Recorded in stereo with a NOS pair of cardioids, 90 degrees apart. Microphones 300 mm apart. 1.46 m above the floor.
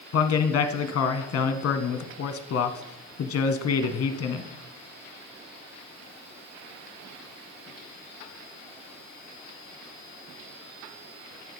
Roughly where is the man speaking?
Ahead left.